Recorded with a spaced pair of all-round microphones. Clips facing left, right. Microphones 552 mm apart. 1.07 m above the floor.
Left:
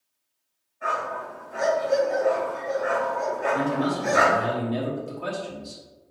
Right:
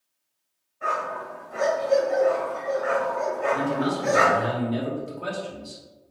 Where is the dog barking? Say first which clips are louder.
Even; 55° right (ahead or behind), 1.9 m.